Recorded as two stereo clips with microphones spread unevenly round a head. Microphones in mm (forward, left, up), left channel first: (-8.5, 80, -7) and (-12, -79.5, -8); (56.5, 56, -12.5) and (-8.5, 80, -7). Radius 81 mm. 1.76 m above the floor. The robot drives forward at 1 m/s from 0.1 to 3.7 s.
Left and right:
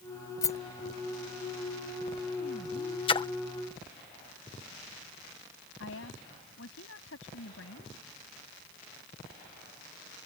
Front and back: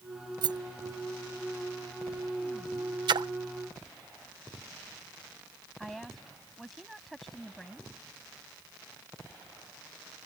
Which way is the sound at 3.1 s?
150° left.